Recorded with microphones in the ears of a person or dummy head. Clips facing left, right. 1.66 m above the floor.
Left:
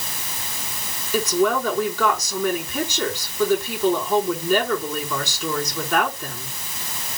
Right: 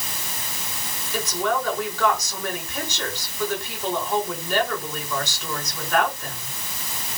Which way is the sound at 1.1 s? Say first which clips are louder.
Left 5 dB; 75° left (ahead or behind).